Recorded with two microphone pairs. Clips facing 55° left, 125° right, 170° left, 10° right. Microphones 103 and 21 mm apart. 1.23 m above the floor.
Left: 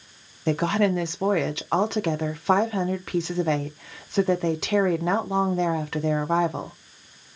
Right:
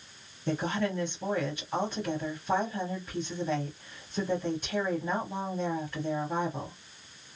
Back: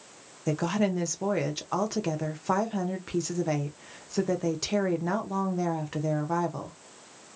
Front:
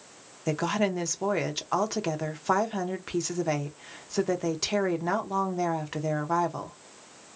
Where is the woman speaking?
65° left, 0.5 m.